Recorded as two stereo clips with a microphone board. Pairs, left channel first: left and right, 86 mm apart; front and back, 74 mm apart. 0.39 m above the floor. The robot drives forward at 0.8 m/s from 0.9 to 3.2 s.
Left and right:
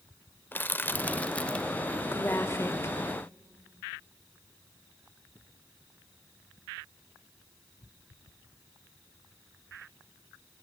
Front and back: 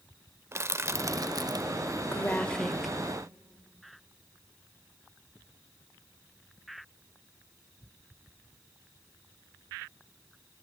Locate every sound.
0.5 s crushing: 150° left, 0.6 m; by 1.8 s 170° left, 1.2 m
2.1 s a woman speaking: 45° left, 1.3 m; by 3.0 s 100° left, 1.1 m